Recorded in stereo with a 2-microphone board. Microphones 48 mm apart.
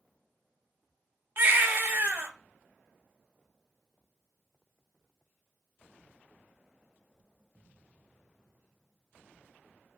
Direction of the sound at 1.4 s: 45° right (ahead or behind).